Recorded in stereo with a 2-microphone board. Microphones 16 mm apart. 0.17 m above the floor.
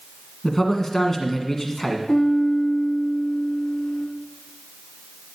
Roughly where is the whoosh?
No whoosh in this recording.